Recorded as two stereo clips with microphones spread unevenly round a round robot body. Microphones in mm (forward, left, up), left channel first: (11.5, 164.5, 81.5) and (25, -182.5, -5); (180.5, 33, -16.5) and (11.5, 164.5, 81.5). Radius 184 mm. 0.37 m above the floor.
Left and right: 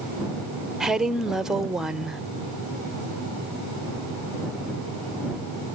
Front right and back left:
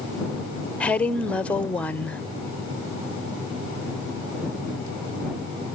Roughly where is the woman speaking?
Ahead right.